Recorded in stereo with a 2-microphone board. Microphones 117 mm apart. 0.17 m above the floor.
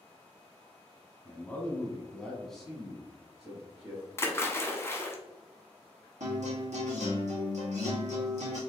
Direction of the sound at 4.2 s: 20° left (ahead or behind).